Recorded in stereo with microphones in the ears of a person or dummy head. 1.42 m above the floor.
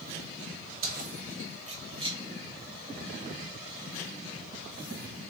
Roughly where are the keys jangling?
Right.